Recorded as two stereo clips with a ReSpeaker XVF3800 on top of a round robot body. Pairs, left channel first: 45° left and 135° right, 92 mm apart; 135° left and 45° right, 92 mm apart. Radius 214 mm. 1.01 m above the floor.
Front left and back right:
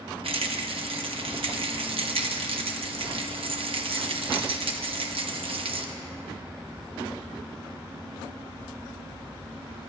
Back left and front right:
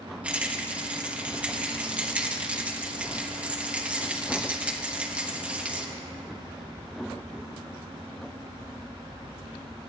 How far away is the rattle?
About 1.0 m.